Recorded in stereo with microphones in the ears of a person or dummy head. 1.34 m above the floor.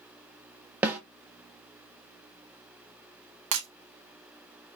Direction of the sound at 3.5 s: 55° right (ahead or behind).